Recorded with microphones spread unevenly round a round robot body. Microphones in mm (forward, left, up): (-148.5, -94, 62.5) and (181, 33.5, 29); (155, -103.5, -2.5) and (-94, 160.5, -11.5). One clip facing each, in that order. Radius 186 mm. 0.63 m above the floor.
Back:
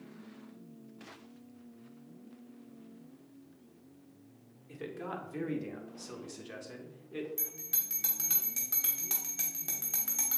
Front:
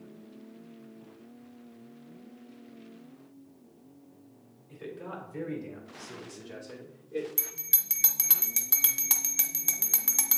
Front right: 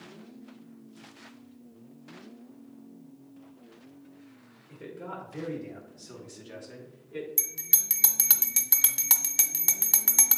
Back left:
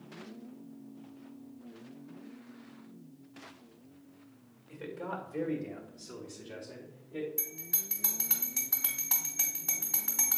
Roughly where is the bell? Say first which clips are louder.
Front 1 dB, back left 2 dB; ahead right.